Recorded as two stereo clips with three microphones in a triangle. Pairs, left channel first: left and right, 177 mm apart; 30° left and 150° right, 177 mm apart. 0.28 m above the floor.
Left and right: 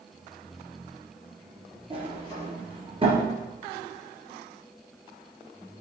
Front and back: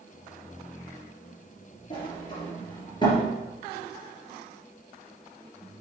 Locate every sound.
1.9 s a sliding door: 30° right, 3 m